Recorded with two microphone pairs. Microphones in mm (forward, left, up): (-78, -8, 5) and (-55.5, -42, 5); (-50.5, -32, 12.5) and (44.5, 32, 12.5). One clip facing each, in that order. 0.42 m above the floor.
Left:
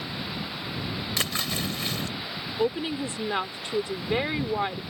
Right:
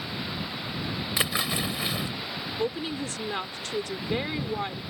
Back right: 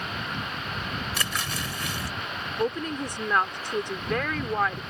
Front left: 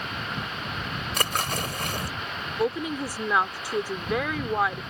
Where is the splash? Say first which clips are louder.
Right 3 dB, front left 4 dB; 15° left.